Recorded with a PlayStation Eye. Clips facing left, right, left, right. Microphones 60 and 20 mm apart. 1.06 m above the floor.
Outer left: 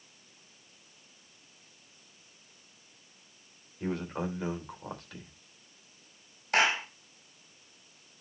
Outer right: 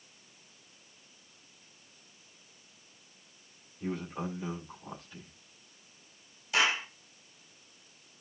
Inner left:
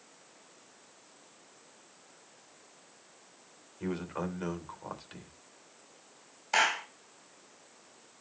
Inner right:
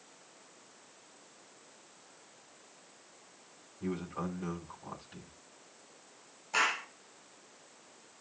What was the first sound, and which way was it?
A man speaking, 85° left.